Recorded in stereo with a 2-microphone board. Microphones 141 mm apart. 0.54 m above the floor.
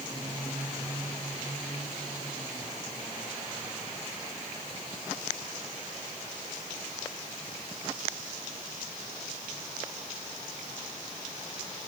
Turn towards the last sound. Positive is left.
No sound to turn to.